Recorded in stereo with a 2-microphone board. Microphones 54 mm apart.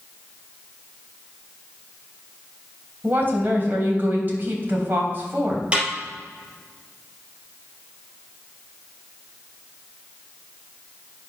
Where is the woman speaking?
35° right (ahead or behind), 2.5 m.